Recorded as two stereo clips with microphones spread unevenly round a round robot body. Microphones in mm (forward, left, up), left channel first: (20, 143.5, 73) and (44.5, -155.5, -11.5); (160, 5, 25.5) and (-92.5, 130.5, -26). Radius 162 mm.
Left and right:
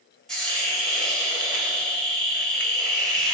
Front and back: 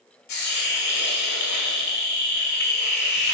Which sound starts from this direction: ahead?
A hiss, at 0.3 s.